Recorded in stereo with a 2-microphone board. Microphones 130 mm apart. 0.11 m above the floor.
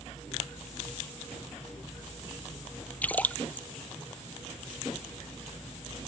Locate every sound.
3.0 s a splash: 10° left (ahead or behind)